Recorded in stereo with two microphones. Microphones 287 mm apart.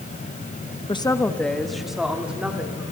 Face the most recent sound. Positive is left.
turn(degrees=-5)  # may be behind; listen again after turning